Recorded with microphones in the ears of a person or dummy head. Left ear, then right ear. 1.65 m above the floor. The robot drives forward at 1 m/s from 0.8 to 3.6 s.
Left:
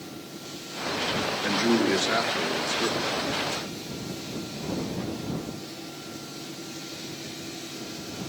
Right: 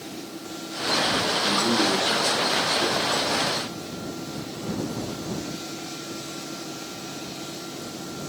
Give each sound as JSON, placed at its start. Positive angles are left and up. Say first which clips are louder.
{"t": 1.4, "sound": "a man speaking", "louder": "left 1 dB", "side_deg": 40, "distance_m": 2.5}